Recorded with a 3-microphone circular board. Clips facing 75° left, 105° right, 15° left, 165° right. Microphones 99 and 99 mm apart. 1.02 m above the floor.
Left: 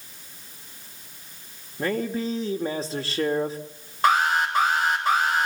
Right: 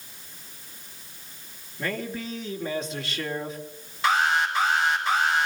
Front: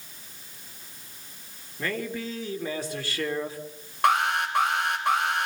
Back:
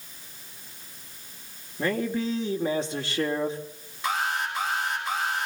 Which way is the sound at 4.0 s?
35° left.